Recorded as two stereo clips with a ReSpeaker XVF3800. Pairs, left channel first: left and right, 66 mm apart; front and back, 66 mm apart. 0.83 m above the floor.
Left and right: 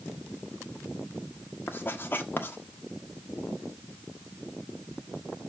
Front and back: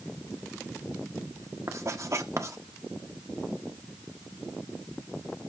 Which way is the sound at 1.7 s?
145° left.